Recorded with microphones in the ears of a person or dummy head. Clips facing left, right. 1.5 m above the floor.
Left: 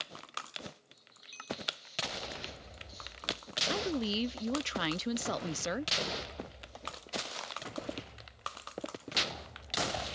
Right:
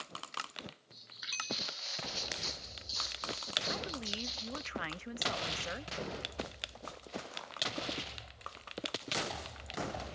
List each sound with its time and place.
0.9 s footsteps: 75° right (ahead or behind)
3.7 s a woman speaking: 50° left (ahead or behind)